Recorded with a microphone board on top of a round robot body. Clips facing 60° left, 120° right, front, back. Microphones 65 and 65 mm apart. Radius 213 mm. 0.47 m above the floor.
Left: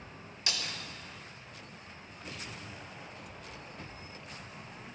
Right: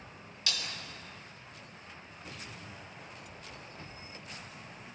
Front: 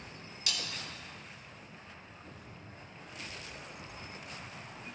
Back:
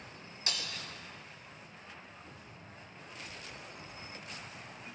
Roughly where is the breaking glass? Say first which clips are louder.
Left 1 dB, even; behind left.